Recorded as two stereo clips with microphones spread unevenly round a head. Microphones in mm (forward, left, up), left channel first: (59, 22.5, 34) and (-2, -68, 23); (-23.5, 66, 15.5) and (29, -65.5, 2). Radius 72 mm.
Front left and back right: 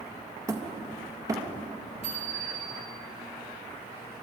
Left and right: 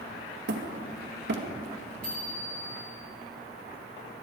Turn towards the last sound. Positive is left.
turn(degrees=-165)